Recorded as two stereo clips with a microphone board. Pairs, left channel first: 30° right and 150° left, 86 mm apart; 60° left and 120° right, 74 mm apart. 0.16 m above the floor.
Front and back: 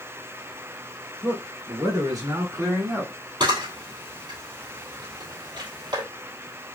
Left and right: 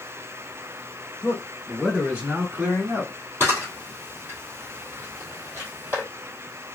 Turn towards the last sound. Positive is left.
turn(degrees=180)